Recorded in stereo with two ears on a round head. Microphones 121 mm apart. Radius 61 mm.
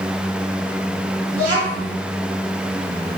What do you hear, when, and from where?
1.3 s a child speaking: 65° right (ahead or behind), 1.4 m